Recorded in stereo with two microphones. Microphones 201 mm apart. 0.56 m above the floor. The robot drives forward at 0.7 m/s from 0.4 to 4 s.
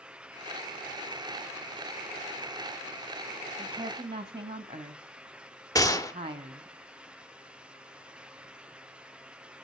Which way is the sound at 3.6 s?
25° right (ahead or behind).